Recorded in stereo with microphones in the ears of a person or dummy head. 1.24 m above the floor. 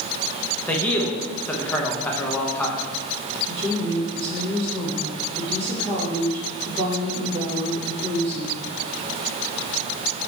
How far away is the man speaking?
About 0.8 m.